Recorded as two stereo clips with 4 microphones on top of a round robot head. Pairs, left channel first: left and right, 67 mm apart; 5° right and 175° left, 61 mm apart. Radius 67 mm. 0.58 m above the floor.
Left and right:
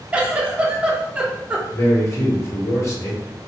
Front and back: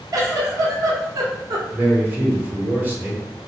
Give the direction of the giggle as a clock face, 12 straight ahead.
5 o'clock.